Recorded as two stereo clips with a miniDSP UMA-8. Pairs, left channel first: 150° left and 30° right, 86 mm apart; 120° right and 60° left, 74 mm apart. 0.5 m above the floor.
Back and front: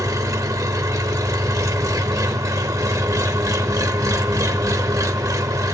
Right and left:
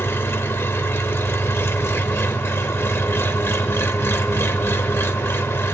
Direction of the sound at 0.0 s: 70° right.